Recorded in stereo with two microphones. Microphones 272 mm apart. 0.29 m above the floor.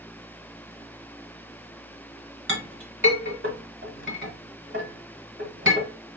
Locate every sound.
2.5 s a clink: 45° right (ahead or behind), 1.4 m